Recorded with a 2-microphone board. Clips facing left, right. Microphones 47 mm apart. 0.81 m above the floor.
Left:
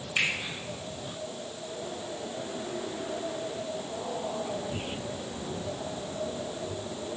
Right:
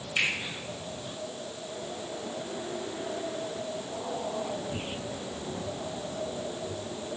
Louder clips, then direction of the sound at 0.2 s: Even; 10° left (ahead or behind).